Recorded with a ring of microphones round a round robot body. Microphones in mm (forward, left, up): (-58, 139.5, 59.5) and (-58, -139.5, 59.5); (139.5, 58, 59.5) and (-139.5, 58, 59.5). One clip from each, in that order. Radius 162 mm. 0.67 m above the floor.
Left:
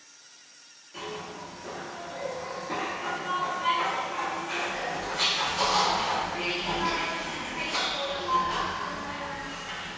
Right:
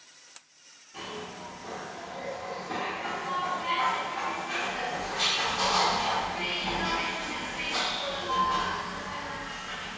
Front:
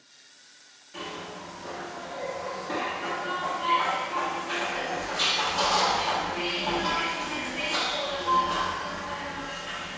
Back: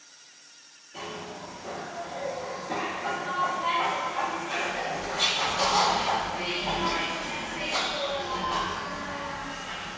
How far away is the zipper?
About 1.4 m.